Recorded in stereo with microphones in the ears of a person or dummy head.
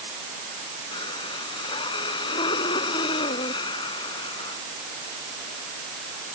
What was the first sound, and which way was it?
Breathing, 30° left (ahead or behind).